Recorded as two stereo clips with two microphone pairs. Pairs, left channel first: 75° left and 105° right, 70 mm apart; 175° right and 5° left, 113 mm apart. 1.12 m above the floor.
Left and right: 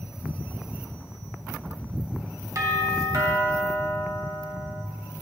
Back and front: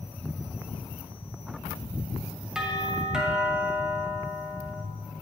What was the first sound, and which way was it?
A doorbell, 75° right.